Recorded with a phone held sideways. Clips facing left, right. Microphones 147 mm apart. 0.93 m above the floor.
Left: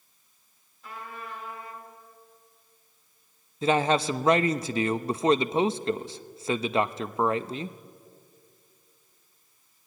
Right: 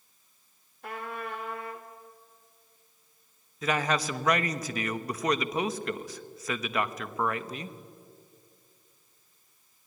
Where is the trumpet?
65° right (ahead or behind), 2.5 m.